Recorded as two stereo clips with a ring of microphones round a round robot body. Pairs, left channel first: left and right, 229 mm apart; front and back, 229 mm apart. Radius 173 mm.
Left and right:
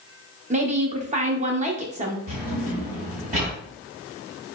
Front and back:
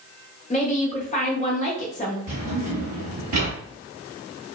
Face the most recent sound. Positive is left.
turn(degrees=-155)